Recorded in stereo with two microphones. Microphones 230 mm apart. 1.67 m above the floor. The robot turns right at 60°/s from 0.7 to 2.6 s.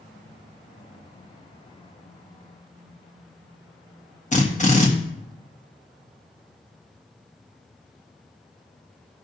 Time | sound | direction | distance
4.3 | a drill | 30° left (ahead or behind) | 1.5 m